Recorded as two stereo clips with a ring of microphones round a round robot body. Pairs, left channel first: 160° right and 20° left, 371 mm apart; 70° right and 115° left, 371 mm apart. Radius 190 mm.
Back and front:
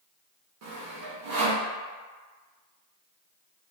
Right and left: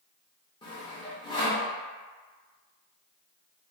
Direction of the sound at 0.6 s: 5° left.